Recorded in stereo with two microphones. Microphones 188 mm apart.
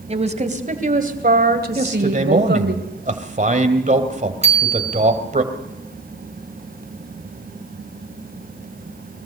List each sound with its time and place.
0.1 s a woman speaking: 35° right (ahead or behind), 2.5 m; by 2.8 s 65° right (ahead or behind), 2.5 m
1.8 s a man speaking: 40° right (ahead or behind), 2 m
4.4 s a bicycle bell: 35° right (ahead or behind), 2.5 m